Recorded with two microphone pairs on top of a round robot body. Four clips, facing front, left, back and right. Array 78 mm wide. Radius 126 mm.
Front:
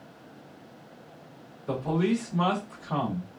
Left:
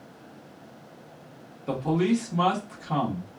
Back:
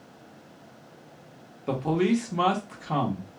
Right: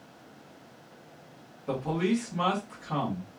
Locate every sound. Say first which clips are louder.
1.7 s a man speaking: left 4 dB, back 2 dB; 165° left, 1.1 m